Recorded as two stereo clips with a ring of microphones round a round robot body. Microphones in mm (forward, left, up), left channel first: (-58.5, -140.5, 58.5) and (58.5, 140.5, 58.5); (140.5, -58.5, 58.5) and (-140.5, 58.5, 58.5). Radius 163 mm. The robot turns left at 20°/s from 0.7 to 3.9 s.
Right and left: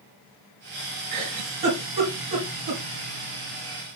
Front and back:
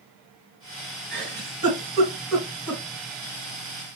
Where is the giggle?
105° left, 3 m; by 2.8 s 70° left, 3 m.